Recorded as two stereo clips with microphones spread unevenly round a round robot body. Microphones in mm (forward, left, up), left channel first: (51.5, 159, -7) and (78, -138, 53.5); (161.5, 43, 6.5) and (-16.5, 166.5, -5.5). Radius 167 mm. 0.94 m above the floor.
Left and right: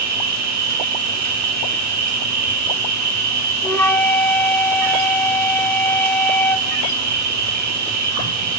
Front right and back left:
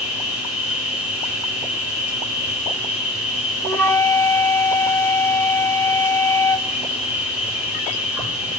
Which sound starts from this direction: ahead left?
A flute, at 3.6 s.